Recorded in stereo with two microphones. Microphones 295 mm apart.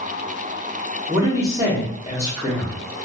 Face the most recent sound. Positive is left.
turn(degrees=-10)  # may be behind; listen again after turning